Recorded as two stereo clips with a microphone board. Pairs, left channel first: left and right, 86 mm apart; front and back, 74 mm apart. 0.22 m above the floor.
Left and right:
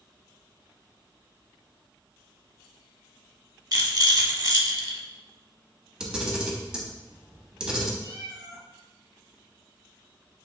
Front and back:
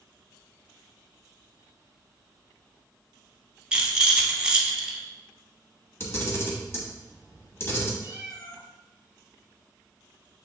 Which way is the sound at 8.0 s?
115° right.